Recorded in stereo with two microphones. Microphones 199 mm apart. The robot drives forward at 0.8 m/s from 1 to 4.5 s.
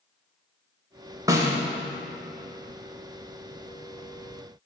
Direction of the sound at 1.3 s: 15° right (ahead or behind).